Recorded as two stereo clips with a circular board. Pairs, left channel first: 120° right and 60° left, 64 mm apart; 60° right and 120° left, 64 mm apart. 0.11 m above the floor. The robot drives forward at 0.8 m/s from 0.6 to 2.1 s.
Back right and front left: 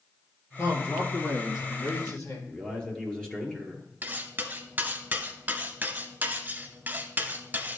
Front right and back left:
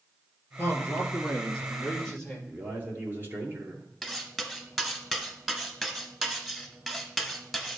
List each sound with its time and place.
0.6 s a man speaking: 110° right, 2.5 m; by 2.4 s 135° right, 3 m
2.5 s a man speaking: 165° left, 1.9 m
4.0 s cutlery clinking: 40° left, 0.8 m